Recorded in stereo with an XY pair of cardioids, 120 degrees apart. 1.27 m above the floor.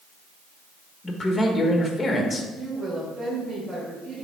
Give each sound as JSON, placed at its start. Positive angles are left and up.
{"t": 1.0, "sound": "a man speaking", "azimuth_deg": 15, "distance_m": 1.3}
{"t": 2.5, "sound": "a woman speaking", "azimuth_deg": -15, "distance_m": 3.0}